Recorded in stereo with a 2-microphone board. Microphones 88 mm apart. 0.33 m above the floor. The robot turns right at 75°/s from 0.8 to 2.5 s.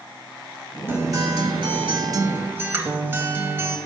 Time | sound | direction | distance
0.9 | a guitar | 150° right | 0.8 m